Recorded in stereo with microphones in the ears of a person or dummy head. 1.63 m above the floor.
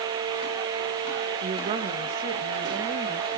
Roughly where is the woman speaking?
Right.